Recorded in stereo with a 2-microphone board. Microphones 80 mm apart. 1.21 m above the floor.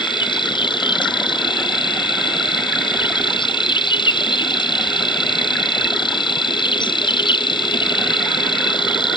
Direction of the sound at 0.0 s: 80° left.